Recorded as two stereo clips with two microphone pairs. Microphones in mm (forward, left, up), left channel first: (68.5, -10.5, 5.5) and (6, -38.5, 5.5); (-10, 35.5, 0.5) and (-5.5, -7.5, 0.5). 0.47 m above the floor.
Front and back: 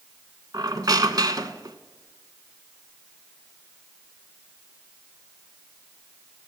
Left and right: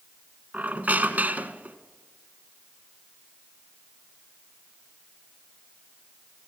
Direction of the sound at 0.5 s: 135° right.